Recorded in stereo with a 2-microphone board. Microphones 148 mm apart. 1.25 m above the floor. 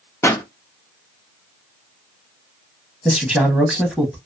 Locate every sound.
0.2 s a pop: 20° left (ahead or behind), 0.7 m
3.0 s a man speaking: 5° right (ahead or behind), 0.8 m